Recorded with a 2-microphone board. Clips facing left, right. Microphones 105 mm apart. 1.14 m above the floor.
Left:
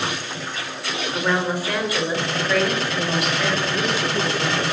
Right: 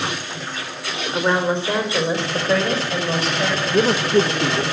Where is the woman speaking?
25° right (ahead or behind), 4.5 m; by 4.7 s 35° right (ahead or behind), 8.5 m.